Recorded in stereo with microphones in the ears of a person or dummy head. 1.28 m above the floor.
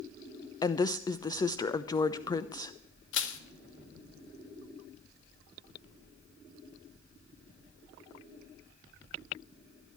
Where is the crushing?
75° left (ahead or behind), 1.3 m.